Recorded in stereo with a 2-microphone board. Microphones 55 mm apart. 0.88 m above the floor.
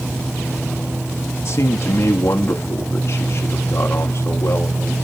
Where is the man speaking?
60° left (ahead or behind), 0.9 m; by 4.9 s 50° left (ahead or behind), 2.5 m.